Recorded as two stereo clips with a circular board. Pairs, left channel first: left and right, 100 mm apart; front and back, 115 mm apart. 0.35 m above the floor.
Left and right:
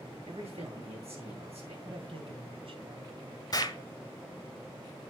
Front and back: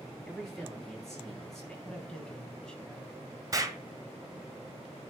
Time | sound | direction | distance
0.3 | a man speaking | 85° right | 7.5 m
1.9 | a man speaking | 85° right | 2 m
3.5 | an explosion | 125° left | 1.3 m